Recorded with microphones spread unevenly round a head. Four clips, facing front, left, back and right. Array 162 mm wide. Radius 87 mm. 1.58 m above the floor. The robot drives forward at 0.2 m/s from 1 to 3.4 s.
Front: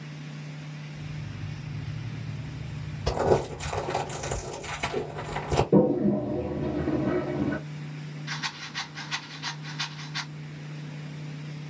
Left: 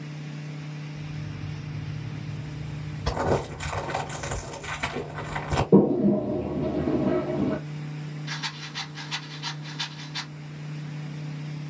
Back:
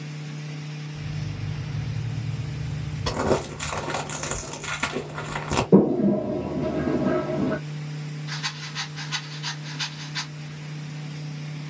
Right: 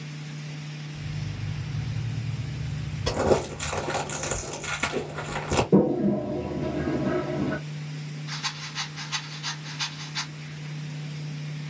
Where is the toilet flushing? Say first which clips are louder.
Left 3 dB, back 4 dB; straight behind, 0.9 m.